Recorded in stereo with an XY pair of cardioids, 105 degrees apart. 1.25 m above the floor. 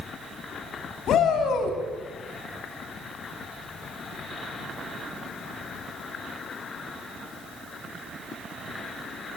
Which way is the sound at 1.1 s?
70° left.